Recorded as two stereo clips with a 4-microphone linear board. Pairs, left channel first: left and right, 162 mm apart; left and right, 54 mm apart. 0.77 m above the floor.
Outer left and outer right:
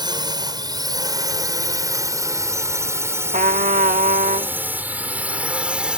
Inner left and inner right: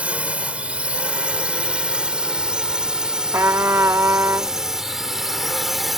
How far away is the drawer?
No drawer in this recording.